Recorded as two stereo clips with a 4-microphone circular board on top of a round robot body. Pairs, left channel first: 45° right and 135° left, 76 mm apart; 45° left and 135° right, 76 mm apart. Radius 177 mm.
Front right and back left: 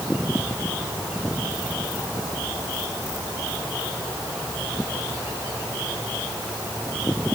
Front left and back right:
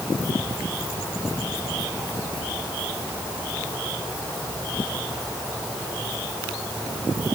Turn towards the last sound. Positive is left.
No sound to turn to.